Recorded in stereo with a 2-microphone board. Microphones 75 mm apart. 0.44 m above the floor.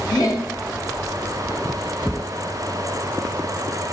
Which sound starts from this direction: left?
Laughter, at 0.1 s.